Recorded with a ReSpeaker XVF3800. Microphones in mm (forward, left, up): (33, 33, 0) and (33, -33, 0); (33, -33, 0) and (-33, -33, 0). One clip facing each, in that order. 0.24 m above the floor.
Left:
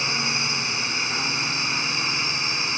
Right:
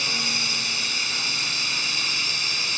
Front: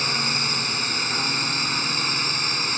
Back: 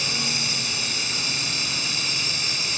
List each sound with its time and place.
0.0 s a drone: 35° left